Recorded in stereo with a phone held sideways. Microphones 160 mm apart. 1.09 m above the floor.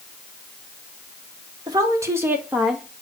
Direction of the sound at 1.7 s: 25° right (ahead or behind).